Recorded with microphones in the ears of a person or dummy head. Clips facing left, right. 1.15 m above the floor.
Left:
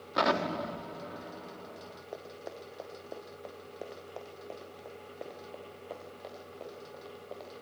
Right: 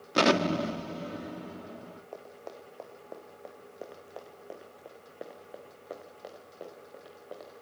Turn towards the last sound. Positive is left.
turn(degrees=-20)  # may be behind; listen again after turning